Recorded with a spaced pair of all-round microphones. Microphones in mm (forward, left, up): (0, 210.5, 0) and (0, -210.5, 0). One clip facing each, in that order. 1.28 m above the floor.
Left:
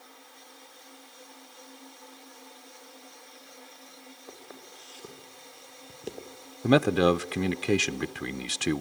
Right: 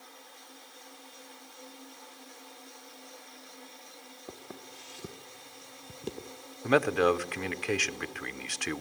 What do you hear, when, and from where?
4.3 s footsteps: 50° right (ahead or behind), 2 m; by 6.4 s 10° right (ahead or behind), 1.6 m
6.6 s a man speaking: 55° left (ahead or behind), 0.6 m